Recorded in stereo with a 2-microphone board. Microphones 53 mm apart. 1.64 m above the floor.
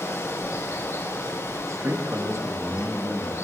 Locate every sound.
0.0 s running water: 85° left, 7.5 m
1.6 s a man speaking: 70° right (ahead or behind), 2.5 m